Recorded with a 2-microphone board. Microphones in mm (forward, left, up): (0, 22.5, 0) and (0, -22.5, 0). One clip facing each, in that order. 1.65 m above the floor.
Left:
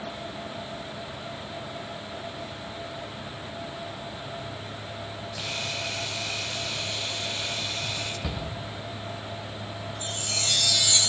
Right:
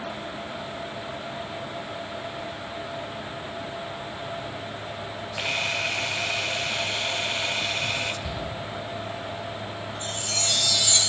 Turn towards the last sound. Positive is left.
turn(degrees=10)  # may be behind; listen again after turning